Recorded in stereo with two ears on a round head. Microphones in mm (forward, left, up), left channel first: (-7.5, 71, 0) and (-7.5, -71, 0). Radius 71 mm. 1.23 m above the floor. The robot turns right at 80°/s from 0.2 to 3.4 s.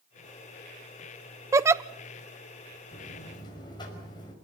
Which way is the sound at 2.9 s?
110° left.